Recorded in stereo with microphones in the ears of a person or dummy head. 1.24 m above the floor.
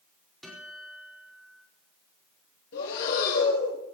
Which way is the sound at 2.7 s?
65° left (ahead or behind).